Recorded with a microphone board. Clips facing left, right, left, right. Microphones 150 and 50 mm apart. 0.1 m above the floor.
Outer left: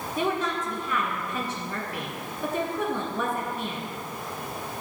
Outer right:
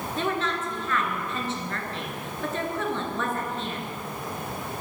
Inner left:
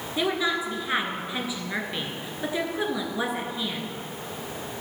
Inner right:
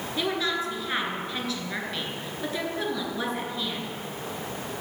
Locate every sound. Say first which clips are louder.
0.2 s a woman speaking: outer left 1 dB, inner left 2 dB; 10° left (ahead or behind), 1.3 m